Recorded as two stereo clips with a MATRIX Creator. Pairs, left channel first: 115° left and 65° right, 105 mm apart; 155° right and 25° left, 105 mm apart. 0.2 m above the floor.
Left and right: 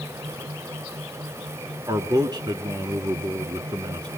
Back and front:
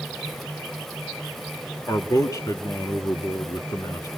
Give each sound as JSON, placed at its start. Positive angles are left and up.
{"t": 1.9, "sound": "a man speaking", "azimuth_deg": -110, "distance_m": 2.5}